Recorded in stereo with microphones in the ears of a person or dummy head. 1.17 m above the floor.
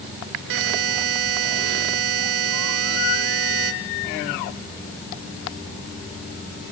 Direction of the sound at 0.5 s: 70° right (ahead or behind).